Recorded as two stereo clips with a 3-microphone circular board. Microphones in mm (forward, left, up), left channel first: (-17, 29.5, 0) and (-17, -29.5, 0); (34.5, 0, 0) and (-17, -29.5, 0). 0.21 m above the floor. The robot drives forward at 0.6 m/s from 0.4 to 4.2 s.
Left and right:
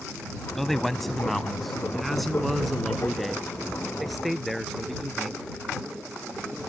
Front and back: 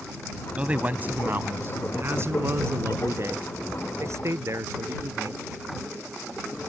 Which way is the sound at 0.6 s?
170° left.